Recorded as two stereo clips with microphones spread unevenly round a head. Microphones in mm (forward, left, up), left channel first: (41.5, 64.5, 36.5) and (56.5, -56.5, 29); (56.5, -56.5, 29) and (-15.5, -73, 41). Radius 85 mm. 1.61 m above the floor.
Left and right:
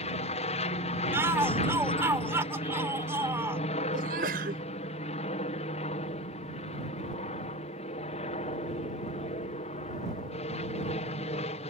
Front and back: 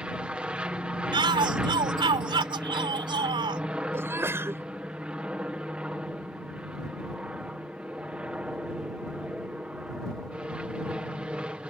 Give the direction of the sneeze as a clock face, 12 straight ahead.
4 o'clock.